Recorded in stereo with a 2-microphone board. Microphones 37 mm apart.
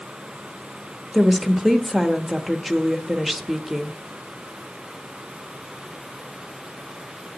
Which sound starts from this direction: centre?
A woman speaking, at 1.1 s.